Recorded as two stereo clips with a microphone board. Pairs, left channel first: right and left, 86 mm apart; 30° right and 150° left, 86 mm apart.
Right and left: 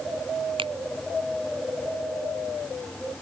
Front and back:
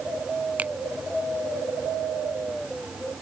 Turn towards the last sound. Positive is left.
turn(degrees=75)